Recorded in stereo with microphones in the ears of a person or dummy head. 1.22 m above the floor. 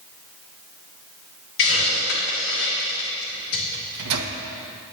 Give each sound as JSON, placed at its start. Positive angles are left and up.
{"t": 1.6, "sound": "a hiss", "side_deg": 60, "distance_m": 2.5}
{"t": 3.7, "sound": "a microwave", "side_deg": -80, "distance_m": 0.9}